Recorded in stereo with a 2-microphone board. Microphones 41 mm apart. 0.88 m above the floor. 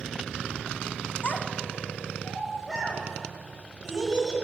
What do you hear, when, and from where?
1.2 s a child speaking: 45° left (ahead or behind), 1.1 m; by 4.3 s 15° right (ahead or behind), 5 m